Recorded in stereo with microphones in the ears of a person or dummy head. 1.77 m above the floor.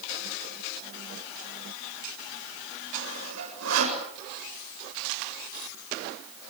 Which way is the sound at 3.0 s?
85° right.